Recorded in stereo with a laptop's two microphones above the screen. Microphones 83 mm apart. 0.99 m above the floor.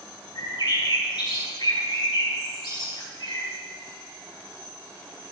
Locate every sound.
0.3 s a bird: 75° left (ahead or behind), 2.5 m